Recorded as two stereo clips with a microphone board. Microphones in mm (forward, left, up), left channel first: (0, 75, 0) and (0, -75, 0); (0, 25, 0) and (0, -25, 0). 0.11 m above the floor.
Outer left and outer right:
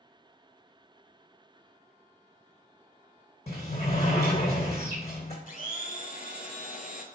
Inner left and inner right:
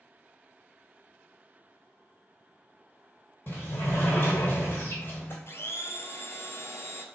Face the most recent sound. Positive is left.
turn(degrees=60)  # may be behind; listen again after turning